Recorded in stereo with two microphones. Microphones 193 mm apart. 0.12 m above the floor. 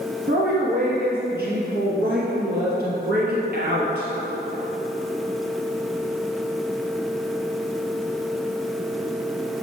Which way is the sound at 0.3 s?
60° right (ahead or behind).